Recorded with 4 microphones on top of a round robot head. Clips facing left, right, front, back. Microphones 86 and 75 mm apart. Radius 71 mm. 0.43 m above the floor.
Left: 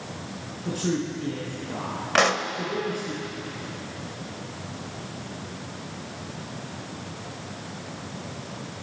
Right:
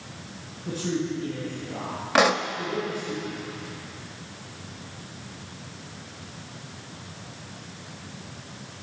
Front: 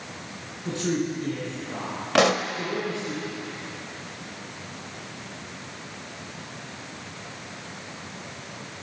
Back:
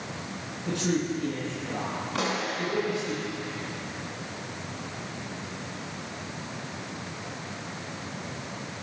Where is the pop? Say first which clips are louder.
Right 1 dB, front 10 dB; 10° right, 0.9 m.